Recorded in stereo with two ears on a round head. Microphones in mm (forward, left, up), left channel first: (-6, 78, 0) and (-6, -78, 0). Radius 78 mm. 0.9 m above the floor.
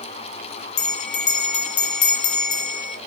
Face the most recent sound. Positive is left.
turn(degrees=45)  # may be behind; listen again after turning